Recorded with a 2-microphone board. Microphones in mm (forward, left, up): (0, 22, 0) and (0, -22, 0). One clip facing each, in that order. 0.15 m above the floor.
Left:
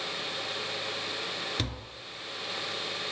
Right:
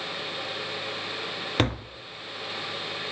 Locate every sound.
1.6 s tapping: 45° right (ahead or behind), 0.5 m